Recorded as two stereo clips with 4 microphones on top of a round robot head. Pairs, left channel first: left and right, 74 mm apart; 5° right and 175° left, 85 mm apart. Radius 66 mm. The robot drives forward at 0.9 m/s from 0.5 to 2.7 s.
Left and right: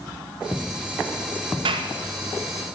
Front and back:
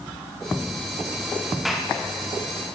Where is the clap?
95° right, 2.5 m; by 1.9 s 100° right, 2.5 m.